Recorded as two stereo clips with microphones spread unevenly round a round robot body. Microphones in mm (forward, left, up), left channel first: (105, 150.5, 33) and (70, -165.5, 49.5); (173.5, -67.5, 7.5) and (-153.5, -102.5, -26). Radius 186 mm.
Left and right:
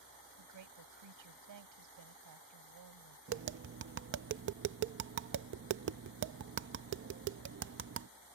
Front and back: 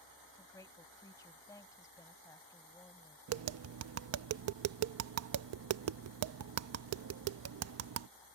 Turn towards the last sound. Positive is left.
turn(degrees=-145)